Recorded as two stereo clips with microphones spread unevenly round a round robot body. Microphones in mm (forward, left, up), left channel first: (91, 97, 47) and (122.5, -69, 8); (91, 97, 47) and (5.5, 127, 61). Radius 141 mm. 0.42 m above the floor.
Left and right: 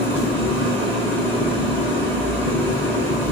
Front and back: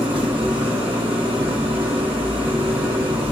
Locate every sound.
0.0 s an engine running: 170° right, 0.9 m